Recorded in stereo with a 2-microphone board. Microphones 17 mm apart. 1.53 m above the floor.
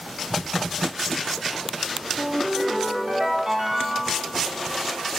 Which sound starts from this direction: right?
A ringtone, at 2.2 s.